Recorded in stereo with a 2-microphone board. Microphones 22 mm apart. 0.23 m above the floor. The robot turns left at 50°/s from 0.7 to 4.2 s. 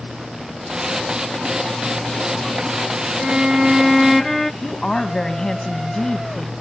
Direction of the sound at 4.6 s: 25° left (ahead or behind).